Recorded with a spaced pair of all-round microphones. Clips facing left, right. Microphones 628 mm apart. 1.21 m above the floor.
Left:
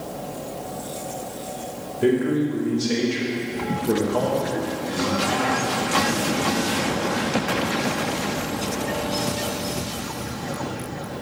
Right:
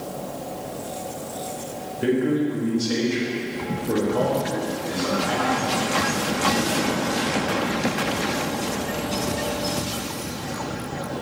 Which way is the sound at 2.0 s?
30° left (ahead or behind).